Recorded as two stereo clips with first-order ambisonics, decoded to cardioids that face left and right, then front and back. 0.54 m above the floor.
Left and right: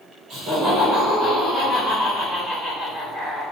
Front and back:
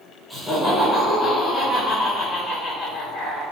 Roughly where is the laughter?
Right.